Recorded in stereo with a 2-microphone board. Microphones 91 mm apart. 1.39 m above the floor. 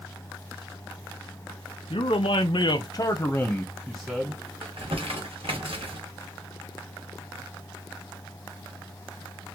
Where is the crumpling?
75° right (ahead or behind), 1.3 m.